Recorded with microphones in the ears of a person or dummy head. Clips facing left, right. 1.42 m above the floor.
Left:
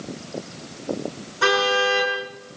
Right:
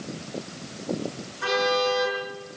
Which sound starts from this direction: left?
A car horn, at 1.4 s.